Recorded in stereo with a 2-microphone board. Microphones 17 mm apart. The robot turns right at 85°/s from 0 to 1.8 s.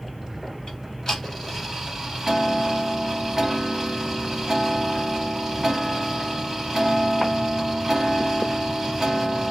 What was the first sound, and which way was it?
Ticking, 110° left.